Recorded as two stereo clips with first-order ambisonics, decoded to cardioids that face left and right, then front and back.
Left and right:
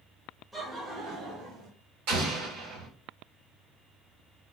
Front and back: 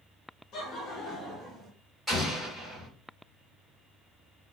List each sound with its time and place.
0.5 s laughter: 10° right, 1.1 m; by 1.7 s 85° right, 1.5 m
2.1 s an explosion: 85° right, 1.6 m